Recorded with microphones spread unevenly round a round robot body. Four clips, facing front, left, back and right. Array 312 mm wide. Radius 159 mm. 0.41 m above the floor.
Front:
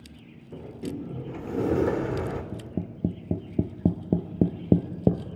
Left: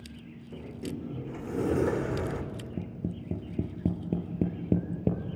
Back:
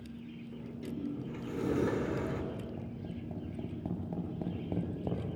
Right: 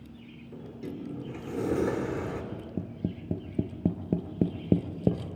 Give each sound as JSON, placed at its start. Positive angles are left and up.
{"t": 0.5, "sound": "a sliding door", "azimuth_deg": 0, "distance_m": 1.8}
{"t": 2.5, "sound": "tapping", "azimuth_deg": -15, "distance_m": 1.9}